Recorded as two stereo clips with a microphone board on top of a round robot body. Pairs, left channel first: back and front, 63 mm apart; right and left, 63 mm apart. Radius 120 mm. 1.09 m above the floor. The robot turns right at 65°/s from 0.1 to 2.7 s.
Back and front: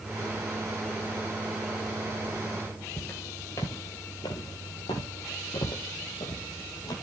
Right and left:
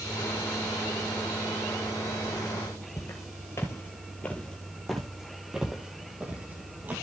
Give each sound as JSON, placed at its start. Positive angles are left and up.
{"t": 3.0, "sound": "footsteps", "azimuth_deg": -120, "distance_m": 1.6}